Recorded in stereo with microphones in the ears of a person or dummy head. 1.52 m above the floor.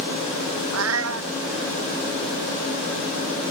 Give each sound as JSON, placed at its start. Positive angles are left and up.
{"t": 0.7, "sound": "a cat meowing", "side_deg": -85}